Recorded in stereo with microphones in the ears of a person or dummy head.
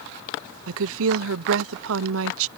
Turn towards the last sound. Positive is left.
turn(degrees=-75)  # may be behind; listen again after turning